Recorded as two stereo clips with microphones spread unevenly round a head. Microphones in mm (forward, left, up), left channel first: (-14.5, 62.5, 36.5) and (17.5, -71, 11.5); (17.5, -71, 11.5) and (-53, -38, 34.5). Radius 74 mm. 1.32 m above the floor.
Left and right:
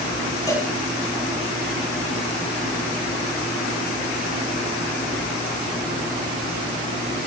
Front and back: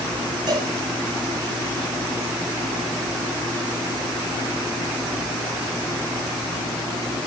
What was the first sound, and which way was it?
A cowbell, 165° left.